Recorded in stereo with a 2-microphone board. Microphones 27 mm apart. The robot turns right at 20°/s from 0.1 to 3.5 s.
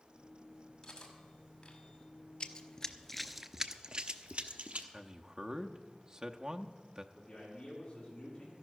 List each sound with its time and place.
0.8 s cutlery clinking: 15° left (ahead or behind), 2 m; by 1.8 s 35° left (ahead or behind), 2 m
2.4 s running footsteps: 35° left (ahead or behind), 0.8 m; by 4.8 s 60° right (ahead or behind), 1.2 m
4.9 s a man speaking: 30° right (ahead or behind), 0.7 m
7.1 s a man speaking: 40° left (ahead or behind), 6.5 m